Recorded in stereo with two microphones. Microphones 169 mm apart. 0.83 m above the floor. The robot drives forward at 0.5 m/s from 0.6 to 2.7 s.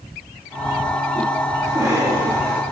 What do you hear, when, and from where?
1.6 s a cough: 15° right (ahead or behind), 6 m